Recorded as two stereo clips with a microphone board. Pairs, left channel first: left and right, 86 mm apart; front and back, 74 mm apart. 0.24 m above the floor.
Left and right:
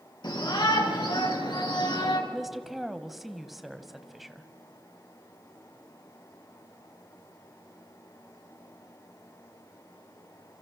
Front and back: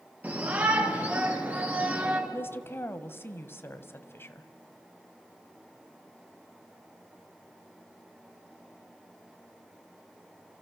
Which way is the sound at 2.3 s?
5° right.